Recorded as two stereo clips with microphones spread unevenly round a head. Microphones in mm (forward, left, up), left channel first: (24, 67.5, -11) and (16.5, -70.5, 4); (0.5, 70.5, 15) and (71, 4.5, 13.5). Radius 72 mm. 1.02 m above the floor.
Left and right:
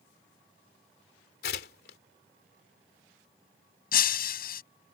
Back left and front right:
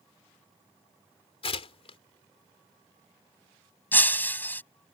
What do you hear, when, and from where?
1.4 s tearing paper: 115° left
3.9 s breaking glass: 65° left